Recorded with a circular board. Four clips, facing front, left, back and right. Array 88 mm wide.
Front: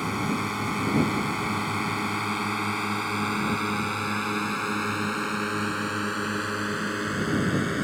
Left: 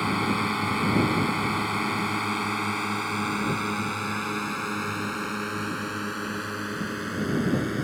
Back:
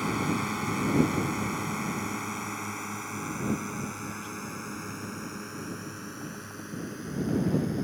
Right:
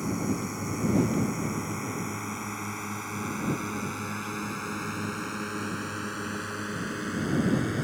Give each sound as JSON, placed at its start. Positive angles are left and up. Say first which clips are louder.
{"t": 0.0, "sound": "a drone", "louder": "left 4 dB, front 1 dB", "azimuth_deg": 80}